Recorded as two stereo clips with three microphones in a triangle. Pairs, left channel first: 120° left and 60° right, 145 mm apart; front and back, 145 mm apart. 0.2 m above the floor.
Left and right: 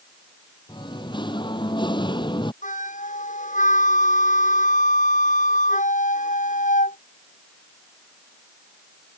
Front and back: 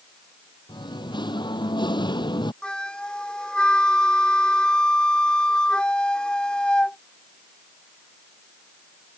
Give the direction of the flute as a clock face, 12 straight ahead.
9 o'clock.